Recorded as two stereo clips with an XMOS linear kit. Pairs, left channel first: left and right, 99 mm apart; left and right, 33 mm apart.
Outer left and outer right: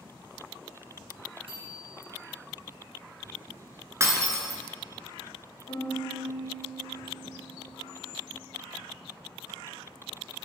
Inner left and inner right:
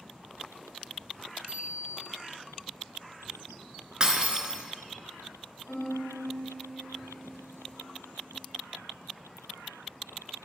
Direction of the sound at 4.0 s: 30° right (ahead or behind).